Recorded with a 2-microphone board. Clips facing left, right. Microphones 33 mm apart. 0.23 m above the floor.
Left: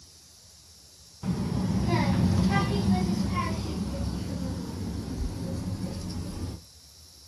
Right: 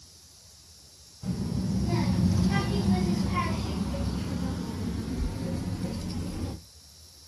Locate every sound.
1.2 s a child speaking: 60° left (ahead or behind), 1.0 m; by 6.5 s 45° right (ahead or behind), 2.5 m